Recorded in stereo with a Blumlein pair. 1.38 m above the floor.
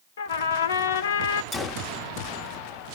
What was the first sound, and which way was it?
A trumpet, 60° left.